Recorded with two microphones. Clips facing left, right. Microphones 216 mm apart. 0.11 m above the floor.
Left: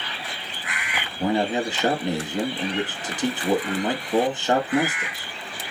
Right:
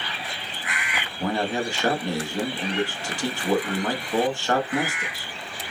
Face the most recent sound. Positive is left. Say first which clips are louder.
# left 3 dB
turn(degrees=20)  # may be behind; listen again after turning